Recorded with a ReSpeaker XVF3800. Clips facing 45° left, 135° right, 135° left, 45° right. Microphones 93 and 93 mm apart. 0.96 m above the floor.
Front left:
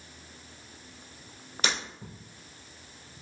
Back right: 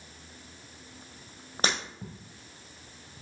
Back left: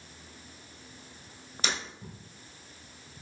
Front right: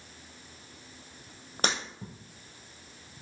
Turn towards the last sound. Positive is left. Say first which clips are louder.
# back right 1 dB, front right 3 dB
turn(degrees=-85)